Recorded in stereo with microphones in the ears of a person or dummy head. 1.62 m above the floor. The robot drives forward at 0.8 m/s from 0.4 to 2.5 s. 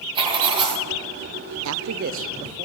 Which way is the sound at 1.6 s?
75° right (ahead or behind).